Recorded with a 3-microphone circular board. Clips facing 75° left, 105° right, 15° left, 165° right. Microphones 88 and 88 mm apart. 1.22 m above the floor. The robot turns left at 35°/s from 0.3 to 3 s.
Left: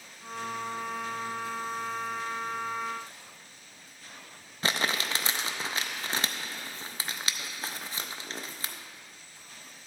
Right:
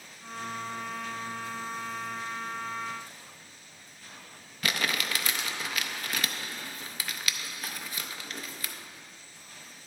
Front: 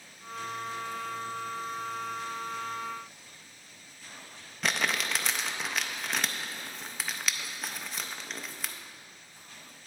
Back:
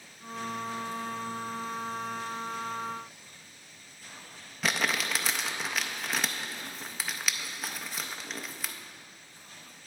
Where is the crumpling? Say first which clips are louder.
Left 1 dB, back 1 dB; 110° left, 0.5 m.